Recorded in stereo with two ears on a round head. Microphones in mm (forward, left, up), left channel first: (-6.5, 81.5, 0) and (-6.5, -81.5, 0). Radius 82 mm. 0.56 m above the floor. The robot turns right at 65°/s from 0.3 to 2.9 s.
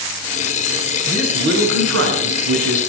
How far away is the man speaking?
About 5.5 m.